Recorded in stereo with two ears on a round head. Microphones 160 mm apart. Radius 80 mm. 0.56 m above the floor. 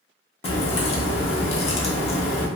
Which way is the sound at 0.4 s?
35° left (ahead or behind).